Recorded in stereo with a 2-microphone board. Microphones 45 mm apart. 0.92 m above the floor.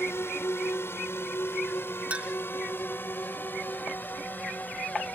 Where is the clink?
30° right (ahead or behind).